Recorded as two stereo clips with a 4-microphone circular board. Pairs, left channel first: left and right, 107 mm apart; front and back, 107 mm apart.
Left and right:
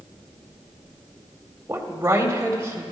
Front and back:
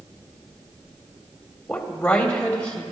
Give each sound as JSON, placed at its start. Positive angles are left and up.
{"t": 1.7, "sound": "a woman speaking", "azimuth_deg": -65, "distance_m": 1.5}